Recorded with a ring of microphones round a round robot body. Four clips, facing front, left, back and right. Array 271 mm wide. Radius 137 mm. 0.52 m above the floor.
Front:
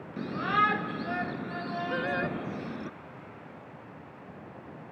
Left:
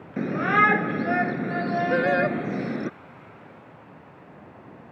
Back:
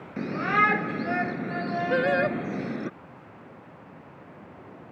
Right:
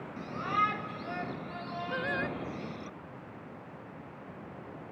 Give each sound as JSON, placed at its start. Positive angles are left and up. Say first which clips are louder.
{"t": 0.2, "sound": "a shout", "louder": "left 10 dB, back 3 dB", "azimuth_deg": 105}
{"t": 1.9, "sound": "singing", "louder": "left 11 dB, back 9 dB", "azimuth_deg": 130}